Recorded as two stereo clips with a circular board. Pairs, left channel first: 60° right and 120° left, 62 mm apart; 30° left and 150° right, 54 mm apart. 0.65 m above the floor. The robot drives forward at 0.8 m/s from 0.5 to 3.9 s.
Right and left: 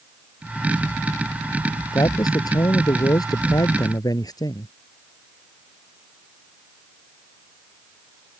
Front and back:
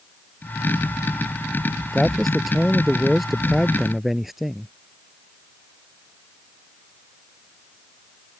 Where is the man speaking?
55° right; by 4.7 s 65° right.